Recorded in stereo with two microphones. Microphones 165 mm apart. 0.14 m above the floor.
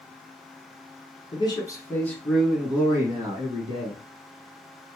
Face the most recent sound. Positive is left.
turn(degrees=-35)  # may be behind; listen again after turning